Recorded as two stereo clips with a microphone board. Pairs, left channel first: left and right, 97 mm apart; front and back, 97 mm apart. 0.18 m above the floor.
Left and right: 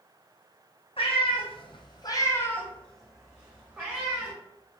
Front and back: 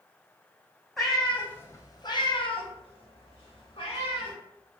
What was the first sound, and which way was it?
A cat meowing, 90° left.